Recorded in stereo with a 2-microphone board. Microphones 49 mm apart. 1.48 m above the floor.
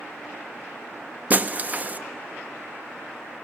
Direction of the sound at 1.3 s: 30° right (ahead or behind).